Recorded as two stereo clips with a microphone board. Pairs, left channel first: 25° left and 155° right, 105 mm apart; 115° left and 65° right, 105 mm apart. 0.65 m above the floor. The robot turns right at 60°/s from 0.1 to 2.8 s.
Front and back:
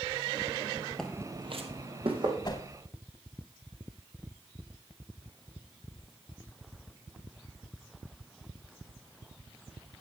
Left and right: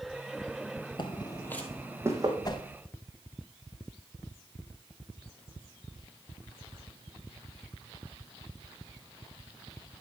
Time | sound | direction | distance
1.0 | footsteps | 100° left | 0.8 m
2.5 | a whoosh | 65° left | 0.9 m